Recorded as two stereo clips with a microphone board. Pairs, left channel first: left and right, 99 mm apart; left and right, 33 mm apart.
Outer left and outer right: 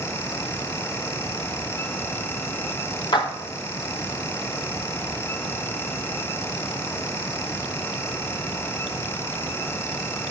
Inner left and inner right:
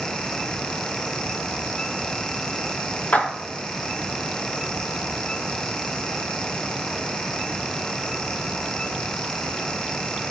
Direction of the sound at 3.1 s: 50° left (ahead or behind).